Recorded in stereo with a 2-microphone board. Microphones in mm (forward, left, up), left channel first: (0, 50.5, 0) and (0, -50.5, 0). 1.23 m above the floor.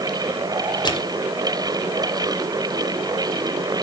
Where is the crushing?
45° left (ahead or behind), 2.5 m.